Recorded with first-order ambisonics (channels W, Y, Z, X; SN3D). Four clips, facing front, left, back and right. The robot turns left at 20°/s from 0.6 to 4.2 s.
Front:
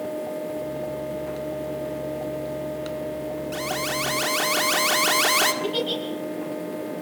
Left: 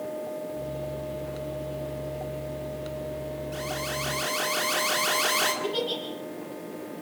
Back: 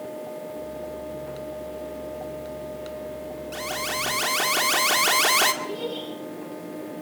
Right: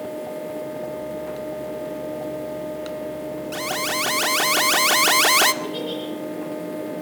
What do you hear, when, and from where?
3.5 s an alarm: 80° right, 1.9 m; by 5.5 s 90° right, 1.9 m
5.6 s a giggle: 10° left, 8.5 m